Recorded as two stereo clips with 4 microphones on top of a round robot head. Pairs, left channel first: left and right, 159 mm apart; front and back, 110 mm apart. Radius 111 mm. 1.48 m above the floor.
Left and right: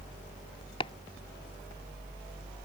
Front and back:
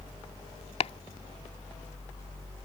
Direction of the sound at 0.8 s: 25° left.